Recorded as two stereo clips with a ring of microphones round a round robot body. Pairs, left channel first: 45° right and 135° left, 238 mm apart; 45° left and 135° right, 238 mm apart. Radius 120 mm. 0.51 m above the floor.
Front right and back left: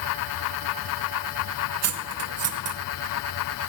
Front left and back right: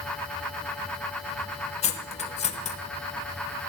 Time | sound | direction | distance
1.8 | cutlery clinking | 110° left | 0.9 m